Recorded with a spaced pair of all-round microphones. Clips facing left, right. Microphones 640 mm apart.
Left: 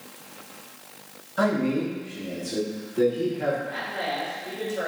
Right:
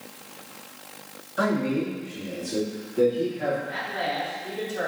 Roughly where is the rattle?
No rattle in this recording.